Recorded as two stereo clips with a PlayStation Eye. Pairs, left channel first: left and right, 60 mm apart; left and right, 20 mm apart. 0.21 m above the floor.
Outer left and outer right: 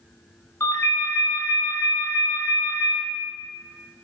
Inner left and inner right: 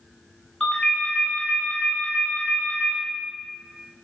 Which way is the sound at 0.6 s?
45° left (ahead or behind).